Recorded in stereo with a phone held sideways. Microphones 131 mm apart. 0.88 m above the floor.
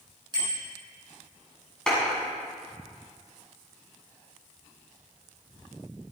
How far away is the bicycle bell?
About 8 m.